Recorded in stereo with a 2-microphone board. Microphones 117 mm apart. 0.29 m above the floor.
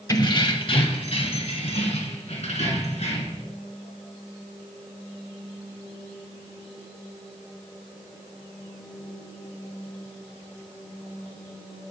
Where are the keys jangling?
35° left (ahead or behind), 0.7 m; by 3.4 s 75° left (ahead or behind), 2.5 m.